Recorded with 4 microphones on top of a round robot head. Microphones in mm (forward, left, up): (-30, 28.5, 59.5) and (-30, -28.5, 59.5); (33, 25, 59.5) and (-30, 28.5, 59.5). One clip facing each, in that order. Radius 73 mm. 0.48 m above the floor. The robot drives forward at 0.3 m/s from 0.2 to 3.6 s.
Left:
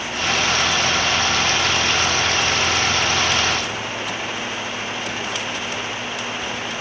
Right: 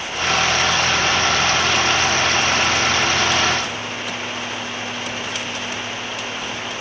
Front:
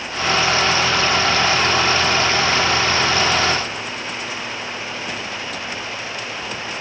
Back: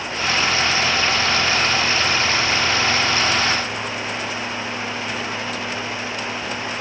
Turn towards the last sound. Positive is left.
No sound to turn to.